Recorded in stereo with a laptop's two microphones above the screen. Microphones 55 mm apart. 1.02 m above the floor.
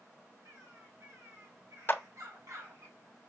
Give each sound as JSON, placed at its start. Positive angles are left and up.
{"t": 0.5, "sound": "a bird", "side_deg": -70, "distance_m": 3.5}
{"t": 1.9, "sound": "a clap", "side_deg": 40, "distance_m": 1.2}